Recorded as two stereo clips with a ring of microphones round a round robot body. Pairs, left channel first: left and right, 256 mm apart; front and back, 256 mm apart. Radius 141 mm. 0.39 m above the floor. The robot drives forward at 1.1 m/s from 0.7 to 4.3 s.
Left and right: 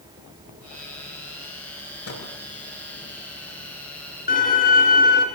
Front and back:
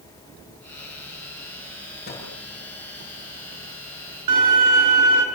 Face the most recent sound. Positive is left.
turn(degrees=155)